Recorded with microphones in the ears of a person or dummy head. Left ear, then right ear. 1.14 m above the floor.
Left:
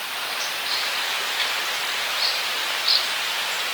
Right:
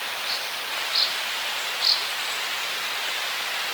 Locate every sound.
Only background noise.